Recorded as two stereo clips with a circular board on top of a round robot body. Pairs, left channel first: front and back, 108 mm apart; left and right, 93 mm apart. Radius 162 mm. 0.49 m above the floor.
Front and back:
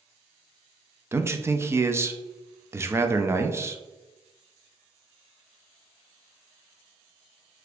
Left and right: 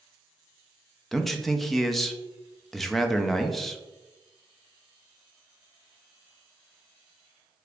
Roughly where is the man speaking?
Behind.